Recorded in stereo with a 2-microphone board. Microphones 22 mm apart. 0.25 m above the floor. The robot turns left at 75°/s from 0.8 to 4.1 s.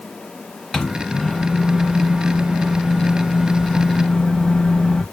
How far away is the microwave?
About 1.0 m.